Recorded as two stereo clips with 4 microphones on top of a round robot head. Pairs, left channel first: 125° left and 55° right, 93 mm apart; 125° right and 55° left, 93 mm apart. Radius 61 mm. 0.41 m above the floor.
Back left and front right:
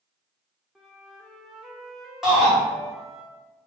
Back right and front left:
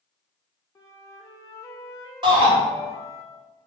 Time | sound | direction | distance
0.8 | a flute | 135° right | 0.7 m
2.2 | a shout | 30° left | 1.8 m